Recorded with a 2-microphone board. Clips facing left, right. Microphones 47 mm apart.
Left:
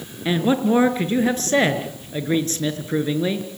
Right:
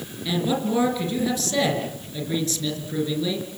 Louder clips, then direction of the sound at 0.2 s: Left 5 dB; 35° left (ahead or behind).